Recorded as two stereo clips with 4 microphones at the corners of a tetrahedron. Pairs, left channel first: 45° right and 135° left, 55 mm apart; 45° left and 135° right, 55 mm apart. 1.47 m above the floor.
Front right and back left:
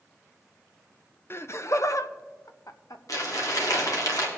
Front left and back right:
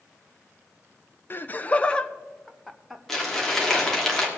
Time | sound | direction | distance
1.3 | laughter | straight ahead | 0.8 m
3.1 | crumpling | 35° right | 2.5 m